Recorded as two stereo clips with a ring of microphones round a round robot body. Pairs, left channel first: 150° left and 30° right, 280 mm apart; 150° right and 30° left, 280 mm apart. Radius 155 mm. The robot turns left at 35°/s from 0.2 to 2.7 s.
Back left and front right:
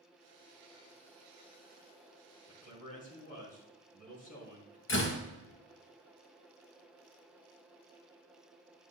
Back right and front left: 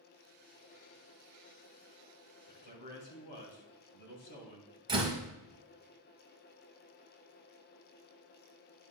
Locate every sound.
2.5 s a man speaking: 140° right, 3 m; by 4.8 s 150° right, 3 m
4.9 s a door slam: 105° left, 1.5 m